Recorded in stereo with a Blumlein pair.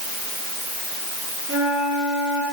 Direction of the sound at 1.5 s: 30° left.